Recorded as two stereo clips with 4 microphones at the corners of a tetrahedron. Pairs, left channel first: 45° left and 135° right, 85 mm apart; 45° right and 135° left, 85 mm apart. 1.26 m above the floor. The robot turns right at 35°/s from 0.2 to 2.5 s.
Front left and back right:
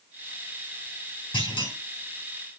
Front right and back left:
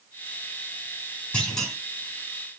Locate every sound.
1.3 s a clunk: 30° left, 4 m; by 1.8 s 45° left, 4 m